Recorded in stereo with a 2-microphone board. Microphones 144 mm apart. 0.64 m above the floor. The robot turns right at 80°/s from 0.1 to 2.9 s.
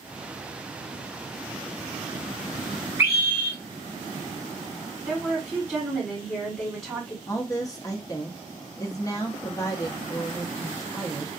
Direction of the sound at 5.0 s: 5° right (ahead or behind).